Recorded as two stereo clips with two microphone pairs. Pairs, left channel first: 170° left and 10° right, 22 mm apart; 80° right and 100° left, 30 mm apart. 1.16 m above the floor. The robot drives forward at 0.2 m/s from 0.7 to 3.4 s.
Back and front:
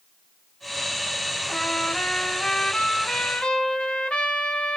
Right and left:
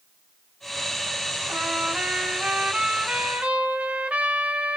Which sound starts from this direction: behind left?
A trumpet, at 1.5 s.